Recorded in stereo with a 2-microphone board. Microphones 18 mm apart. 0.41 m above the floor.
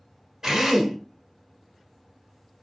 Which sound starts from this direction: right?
A drill, at 0.4 s.